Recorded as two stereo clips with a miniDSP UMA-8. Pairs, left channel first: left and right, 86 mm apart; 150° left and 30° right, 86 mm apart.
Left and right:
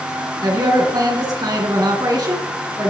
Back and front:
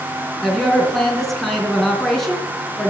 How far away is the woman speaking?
About 3 m.